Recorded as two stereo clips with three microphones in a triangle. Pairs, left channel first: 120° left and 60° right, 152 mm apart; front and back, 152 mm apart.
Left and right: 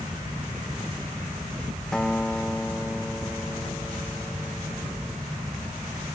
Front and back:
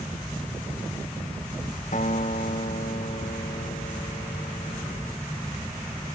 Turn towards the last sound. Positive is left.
turn(degrees=35)